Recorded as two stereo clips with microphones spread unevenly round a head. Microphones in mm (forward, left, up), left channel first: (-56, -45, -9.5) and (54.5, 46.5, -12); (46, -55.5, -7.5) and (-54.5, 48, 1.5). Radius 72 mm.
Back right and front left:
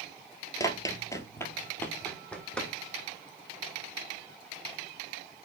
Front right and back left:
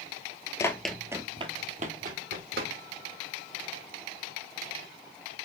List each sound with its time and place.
0.6 s running footsteps: 100° right, 1.2 m; by 2.7 s 135° left, 3 m